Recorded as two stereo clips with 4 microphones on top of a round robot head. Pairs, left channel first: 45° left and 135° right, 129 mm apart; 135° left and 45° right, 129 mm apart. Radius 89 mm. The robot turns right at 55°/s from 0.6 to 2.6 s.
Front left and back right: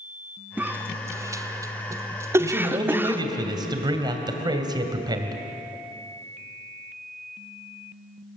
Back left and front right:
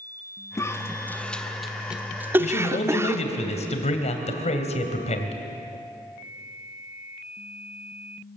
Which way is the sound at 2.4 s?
155° left.